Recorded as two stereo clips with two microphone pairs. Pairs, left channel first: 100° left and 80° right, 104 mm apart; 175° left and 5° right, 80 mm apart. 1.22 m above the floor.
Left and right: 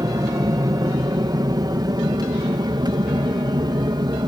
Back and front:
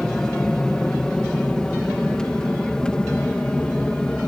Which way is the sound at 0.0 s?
105° right.